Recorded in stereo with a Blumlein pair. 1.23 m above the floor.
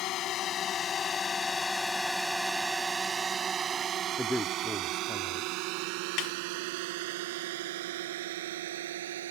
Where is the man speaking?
5° left.